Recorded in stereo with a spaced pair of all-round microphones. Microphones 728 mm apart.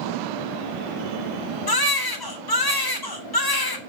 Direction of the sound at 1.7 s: 30° left (ahead or behind).